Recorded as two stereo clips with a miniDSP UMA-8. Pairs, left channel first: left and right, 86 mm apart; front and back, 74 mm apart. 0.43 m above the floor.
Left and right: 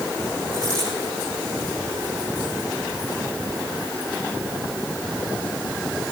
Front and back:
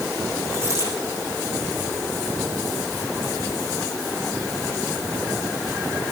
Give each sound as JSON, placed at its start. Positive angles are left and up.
{"t": 0.5, "sound": "a dropped coin", "azimuth_deg": 130, "distance_m": 8.0}